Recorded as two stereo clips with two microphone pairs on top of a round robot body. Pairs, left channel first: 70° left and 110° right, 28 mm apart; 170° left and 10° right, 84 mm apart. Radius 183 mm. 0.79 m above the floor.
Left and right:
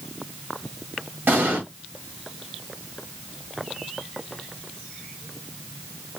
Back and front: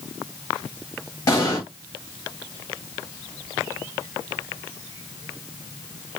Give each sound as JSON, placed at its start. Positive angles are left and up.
{"t": 1.3, "sound": "an explosion", "azimuth_deg": -125, "distance_m": 0.9}